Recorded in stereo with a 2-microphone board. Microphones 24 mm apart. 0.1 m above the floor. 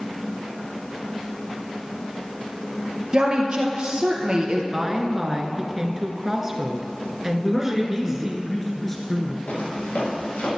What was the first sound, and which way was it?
A woman speaking, 35° right (ahead or behind).